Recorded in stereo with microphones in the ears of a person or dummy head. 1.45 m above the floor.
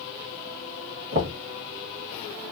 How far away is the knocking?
About 1.5 m.